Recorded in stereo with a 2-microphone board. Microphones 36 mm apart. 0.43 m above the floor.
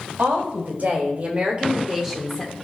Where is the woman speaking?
60° right (ahead or behind), 3 m; by 2.5 s 20° left (ahead or behind), 1.4 m.